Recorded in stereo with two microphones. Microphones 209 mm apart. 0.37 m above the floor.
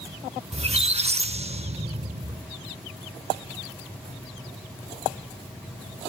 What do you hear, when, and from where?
0.5 s a squeak: 30° right (ahead or behind), 0.5 m